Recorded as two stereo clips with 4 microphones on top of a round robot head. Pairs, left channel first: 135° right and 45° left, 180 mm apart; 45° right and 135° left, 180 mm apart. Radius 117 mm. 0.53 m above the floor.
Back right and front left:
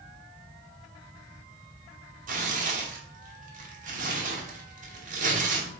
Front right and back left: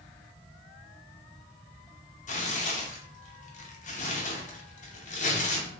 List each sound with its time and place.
2.3 s tearing paper: straight ahead, 0.6 m